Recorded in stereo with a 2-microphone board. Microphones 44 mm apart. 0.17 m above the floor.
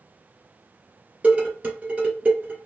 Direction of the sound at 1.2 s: 35° right (ahead or behind).